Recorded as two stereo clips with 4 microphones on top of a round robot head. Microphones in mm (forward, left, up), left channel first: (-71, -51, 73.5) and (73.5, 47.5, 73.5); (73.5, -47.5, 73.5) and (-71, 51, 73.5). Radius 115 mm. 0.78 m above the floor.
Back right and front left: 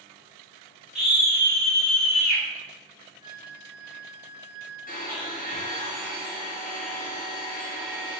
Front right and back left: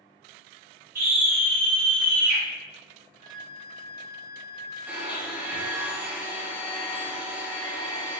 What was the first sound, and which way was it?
A scream, 115° left.